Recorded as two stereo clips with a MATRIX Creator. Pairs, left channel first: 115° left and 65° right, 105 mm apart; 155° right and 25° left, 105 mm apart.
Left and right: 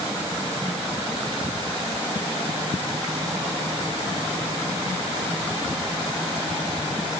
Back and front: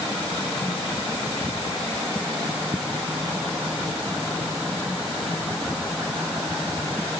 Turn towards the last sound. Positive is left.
No sound to turn to.